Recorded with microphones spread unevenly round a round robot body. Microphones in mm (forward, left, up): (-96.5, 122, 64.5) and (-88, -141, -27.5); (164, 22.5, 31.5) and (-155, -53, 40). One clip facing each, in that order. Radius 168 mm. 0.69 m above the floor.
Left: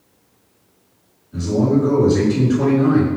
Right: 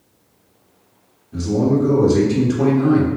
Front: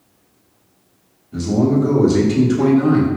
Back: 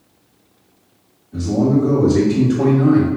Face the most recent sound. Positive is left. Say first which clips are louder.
# even, even
turn(degrees=-50)